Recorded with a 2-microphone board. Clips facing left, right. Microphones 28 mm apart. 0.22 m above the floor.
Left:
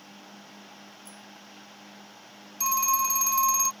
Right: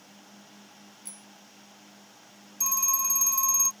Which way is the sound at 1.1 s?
65° right (ahead or behind).